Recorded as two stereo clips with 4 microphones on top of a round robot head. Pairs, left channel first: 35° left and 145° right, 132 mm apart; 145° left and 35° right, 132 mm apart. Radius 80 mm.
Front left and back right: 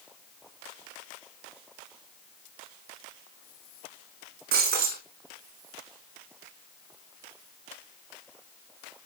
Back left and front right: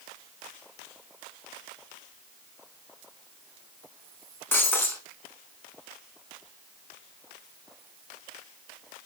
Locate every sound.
4.5 s breaking glass: 140° right, 5 m